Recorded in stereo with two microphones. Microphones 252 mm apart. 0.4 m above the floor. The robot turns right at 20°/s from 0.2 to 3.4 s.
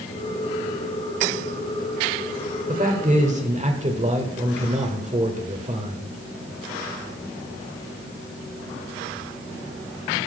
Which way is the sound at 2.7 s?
35° right (ahead or behind).